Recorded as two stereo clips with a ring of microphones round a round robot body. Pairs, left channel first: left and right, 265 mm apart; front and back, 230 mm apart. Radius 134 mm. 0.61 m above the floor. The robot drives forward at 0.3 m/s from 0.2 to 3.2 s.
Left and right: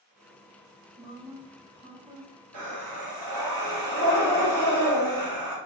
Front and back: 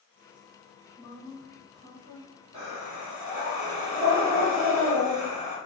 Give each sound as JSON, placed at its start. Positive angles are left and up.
{"t": 1.0, "sound": "a woman speaking", "azimuth_deg": -95, "distance_m": 0.6}
{"t": 2.5, "sound": "breathing", "azimuth_deg": -115, "distance_m": 1.4}